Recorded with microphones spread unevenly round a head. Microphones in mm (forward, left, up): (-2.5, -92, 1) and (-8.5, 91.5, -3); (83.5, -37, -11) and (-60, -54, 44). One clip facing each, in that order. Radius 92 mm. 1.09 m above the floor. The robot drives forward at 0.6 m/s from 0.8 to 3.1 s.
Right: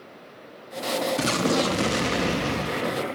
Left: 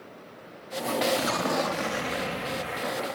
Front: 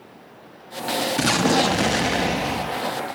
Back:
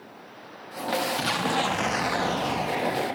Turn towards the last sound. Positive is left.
turn(degrees=-130)